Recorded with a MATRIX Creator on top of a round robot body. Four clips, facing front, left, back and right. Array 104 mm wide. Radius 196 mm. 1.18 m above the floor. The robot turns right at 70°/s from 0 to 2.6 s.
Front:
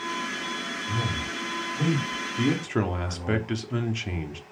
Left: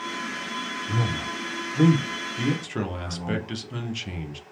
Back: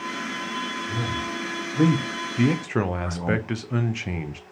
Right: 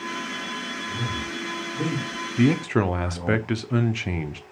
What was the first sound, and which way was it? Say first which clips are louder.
A man speaking: left 3 dB, back 2 dB; 80° left.